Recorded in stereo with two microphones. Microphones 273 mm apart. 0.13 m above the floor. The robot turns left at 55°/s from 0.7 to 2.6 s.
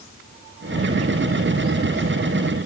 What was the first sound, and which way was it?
Only background noise.